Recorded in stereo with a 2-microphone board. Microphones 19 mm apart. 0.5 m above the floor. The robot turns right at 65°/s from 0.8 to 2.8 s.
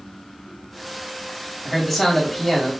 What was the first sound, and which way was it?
A man speaking, 5° left (ahead or behind).